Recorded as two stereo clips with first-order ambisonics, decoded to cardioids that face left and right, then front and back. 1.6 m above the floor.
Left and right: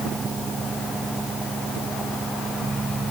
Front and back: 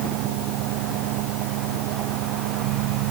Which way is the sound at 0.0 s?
170° right.